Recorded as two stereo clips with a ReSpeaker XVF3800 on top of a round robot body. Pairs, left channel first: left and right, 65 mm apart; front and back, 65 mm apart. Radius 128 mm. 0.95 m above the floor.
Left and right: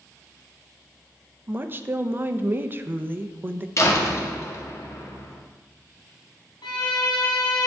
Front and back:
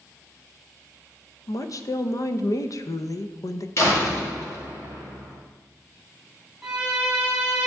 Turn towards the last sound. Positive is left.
turn(degrees=100)